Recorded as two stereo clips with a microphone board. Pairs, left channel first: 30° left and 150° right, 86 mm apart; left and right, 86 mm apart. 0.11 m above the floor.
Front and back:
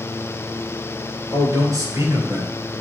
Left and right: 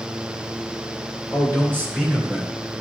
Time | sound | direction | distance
1.3 | a man speaking | 140° right | 2.5 m